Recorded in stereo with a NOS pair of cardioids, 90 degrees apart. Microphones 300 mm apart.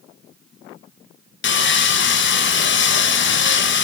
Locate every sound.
1.4 s sawing: 40° left, 0.6 m